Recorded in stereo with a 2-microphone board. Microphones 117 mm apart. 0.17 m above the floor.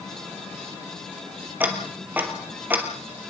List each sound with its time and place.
1.6 s ticking: 15° right (ahead or behind), 2.5 m